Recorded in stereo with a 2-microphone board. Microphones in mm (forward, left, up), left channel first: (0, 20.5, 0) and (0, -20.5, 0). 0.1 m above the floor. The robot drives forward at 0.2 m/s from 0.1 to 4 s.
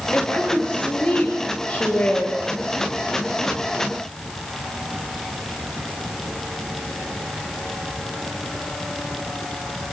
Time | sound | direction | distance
0.1 | a woman speaking | 35° left (ahead or behind) | 10 m